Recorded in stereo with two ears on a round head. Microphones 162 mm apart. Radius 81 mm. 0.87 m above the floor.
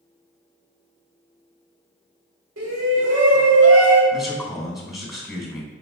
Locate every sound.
2.6 s a shout: 80° right, 3 m
4.1 s a man speaking: centre (ahead or behind), 3 m